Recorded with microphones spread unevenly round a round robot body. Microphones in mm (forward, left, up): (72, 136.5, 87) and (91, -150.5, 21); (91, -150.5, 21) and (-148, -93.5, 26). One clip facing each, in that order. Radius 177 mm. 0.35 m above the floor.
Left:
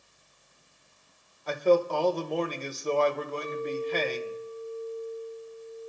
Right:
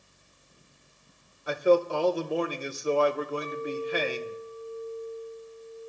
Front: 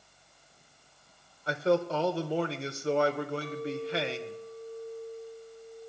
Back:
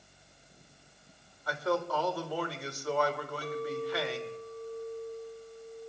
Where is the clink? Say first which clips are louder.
Left 1 dB, even; 155° right, 5 m.